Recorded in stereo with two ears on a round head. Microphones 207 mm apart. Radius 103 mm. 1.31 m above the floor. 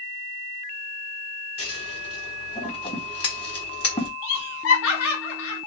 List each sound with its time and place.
1.6 s scissors: 25° left (ahead or behind), 1.4 m
4.2 s laughter: 70° left (ahead or behind), 1.5 m